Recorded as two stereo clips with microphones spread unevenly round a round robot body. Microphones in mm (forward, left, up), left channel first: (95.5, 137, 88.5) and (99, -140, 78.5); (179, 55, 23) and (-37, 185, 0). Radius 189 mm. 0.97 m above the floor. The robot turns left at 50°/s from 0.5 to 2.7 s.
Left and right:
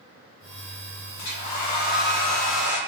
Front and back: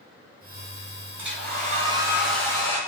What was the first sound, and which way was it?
A hair dryer, 115° left.